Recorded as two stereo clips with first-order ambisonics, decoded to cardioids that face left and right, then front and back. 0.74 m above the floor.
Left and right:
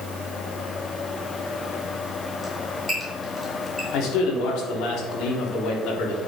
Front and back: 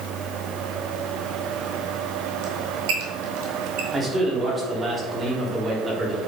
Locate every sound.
2.4 s a squeak: 175° right, 2 m
3.9 s a man speaking: 110° left, 1.8 m